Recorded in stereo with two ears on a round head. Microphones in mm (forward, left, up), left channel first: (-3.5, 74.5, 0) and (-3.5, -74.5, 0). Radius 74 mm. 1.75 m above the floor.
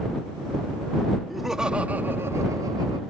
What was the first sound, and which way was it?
Laughter, centre (ahead or behind).